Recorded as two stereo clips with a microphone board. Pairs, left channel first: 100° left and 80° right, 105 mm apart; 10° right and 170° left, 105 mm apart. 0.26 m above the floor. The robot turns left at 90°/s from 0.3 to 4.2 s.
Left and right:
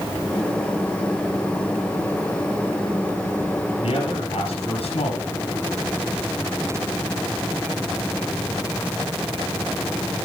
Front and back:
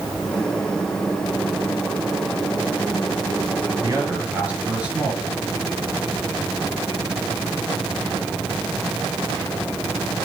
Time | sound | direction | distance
3.8 | a man speaking | 125° left | 4 m